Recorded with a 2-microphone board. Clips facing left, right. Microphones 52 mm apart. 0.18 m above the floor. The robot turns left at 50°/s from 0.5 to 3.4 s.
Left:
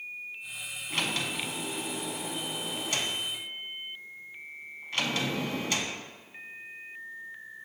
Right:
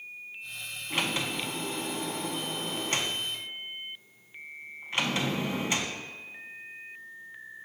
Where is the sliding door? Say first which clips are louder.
Right 1 dB; 15° right, 0.5 m; by 6.0 s 140° right, 0.5 m.